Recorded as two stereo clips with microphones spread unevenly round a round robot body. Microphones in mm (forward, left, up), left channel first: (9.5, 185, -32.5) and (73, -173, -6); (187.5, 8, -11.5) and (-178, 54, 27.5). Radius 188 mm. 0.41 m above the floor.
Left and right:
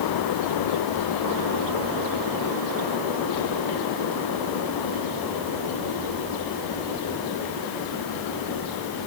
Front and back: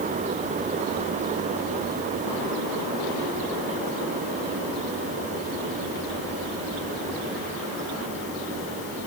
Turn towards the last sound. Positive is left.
No sound to turn to.